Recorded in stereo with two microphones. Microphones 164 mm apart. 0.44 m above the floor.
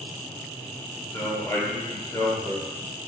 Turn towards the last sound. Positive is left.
turn(degrees=20)  # may be behind; listen again after turning